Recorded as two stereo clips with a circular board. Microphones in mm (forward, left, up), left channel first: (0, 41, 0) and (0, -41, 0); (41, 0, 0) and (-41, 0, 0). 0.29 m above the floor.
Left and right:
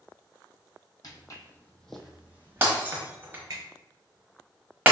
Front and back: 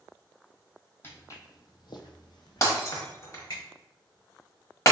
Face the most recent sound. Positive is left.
turn(degrees=-35)